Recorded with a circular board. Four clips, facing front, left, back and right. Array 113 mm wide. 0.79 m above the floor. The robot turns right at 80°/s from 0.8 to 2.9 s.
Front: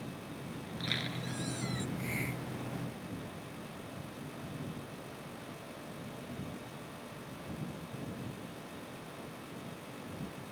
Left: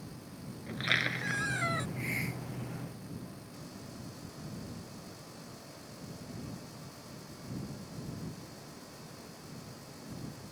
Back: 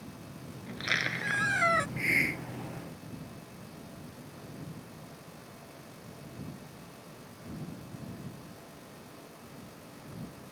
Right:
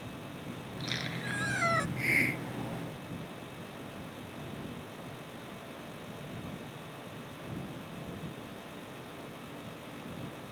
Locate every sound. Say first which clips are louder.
0.7 s a squeak: left 7 dB, back 7 dB; 125° left; by 1.9 s 150° right
2.0 s a hiss: right 5 dB, back 6 dB; 160° right; by 3.0 s 85° right